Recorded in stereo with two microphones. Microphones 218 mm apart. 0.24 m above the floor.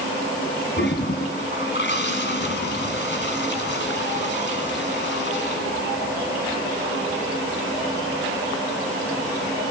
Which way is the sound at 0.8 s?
55° left (ahead or behind).